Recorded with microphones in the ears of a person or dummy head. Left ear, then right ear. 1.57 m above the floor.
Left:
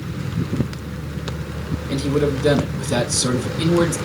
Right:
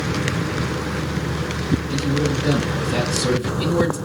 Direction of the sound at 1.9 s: 70° left (ahead or behind).